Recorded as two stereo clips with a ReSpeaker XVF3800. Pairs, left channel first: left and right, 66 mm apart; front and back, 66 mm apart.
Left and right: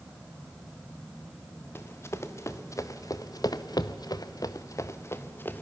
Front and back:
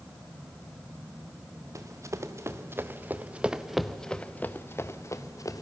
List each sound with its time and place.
1.8 s running footsteps: 140° left, 1.9 m; by 5.6 s 30° left, 1.5 m